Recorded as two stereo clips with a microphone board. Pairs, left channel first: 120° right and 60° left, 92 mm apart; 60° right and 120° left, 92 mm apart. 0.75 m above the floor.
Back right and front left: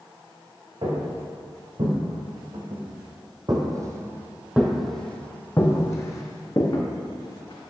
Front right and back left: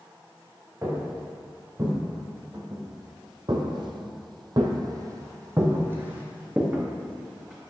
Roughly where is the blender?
I don't hear a blender.